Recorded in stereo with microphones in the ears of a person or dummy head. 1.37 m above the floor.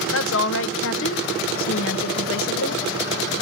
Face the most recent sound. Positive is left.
turn(degrees=65)  # may be behind; listen again after turning